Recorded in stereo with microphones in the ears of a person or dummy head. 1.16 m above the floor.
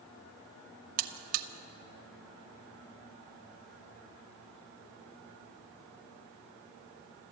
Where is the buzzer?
50° right (ahead or behind), 1.3 m.